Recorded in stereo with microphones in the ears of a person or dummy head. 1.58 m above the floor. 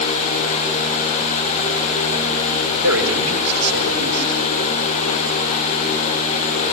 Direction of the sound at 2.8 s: 85° right.